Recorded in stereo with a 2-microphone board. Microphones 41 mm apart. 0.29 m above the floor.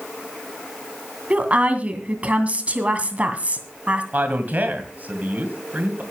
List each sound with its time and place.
1.3 s a woman speaking: 35° right (ahead or behind), 2 m
4.1 s a man speaking: 45° right (ahead or behind), 2 m